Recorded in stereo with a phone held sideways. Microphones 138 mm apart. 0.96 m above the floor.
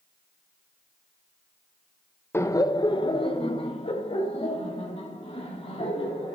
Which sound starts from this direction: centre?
Laughter, at 2.3 s.